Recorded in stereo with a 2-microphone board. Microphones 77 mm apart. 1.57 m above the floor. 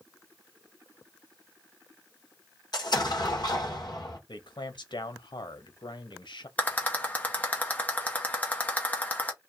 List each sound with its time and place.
2.7 s an explosion: 60° left (ahead or behind), 1.8 m
4.3 s a man speaking: 75° left (ahead or behind), 0.9 m
6.6 s a rattle: 20° left (ahead or behind), 1.0 m